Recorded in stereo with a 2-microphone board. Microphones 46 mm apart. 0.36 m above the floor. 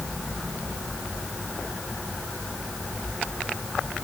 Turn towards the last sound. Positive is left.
No sound to turn to.